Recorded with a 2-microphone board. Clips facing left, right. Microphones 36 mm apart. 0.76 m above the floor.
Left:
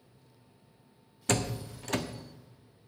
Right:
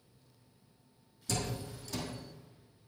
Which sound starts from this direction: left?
A door slam, at 1.3 s.